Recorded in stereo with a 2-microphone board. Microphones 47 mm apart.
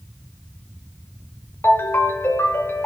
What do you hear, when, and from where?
1.6 s a ringtone: 55° left (ahead or behind), 1.2 m